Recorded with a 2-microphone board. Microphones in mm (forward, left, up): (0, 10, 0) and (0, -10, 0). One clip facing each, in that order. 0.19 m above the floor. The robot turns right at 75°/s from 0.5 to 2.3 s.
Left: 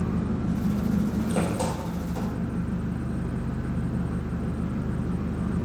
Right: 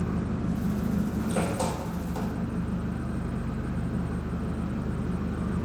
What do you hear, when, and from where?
0.0 s an engine running: 90° left, 2.5 m; by 5.7 s 135° right, 2.5 m